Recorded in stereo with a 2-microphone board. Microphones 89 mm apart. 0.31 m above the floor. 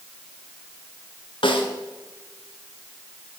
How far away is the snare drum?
About 1.4 m.